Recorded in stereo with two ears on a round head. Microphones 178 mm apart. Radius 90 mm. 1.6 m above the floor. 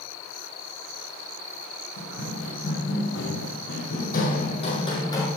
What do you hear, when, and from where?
2.0 s running footsteps: 65° left (ahead or behind), 4.5 m; by 5.3 s 15° left (ahead or behind), 3 m